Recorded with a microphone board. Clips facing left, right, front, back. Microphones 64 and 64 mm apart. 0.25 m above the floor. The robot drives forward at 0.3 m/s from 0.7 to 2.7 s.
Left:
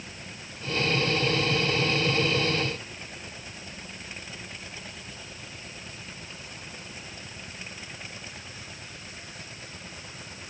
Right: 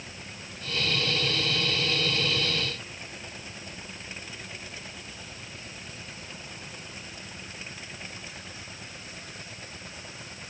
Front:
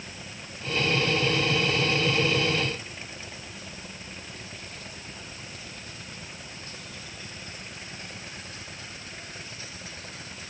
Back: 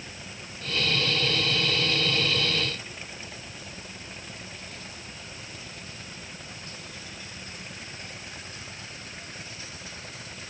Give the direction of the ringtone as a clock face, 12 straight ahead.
No ringtone in this recording.